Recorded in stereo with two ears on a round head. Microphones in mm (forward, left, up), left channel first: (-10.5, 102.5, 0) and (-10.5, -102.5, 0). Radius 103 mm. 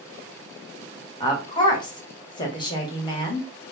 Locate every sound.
1.2 s a woman speaking: 20° left (ahead or behind), 1.2 m